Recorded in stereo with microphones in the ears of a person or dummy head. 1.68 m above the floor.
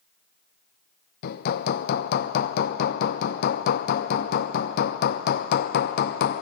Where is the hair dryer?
I don't hear a hair dryer.